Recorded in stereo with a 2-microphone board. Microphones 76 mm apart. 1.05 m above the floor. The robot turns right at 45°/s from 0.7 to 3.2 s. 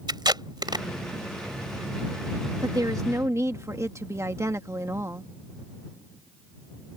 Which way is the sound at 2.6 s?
65° right (ahead or behind).